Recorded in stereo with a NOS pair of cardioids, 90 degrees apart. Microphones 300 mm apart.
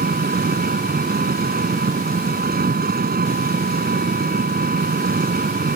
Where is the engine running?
30° right.